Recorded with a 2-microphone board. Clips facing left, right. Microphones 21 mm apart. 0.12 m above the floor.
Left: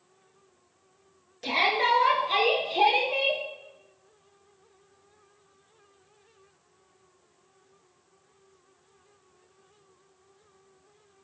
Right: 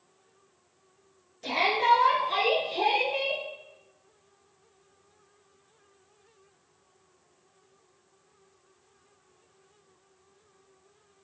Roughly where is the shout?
Left.